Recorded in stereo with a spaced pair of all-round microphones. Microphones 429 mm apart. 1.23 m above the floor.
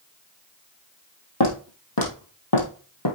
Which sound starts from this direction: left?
Footsteps, at 1.4 s.